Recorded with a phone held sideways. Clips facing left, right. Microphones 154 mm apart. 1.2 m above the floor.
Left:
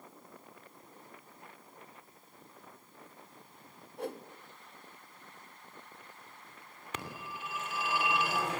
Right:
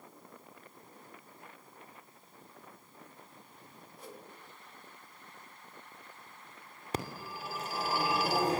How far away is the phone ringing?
About 2.5 m.